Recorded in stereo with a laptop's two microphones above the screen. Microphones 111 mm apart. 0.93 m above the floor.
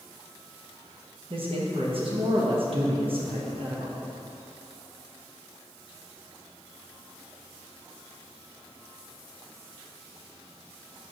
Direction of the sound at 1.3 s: 55° right (ahead or behind).